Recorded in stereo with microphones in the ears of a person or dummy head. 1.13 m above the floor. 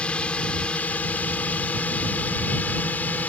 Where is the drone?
Centre (ahead or behind); by 3.3 s 5° left (ahead or behind).